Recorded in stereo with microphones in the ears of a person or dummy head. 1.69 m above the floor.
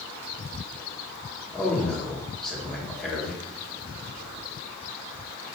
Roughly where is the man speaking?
Centre.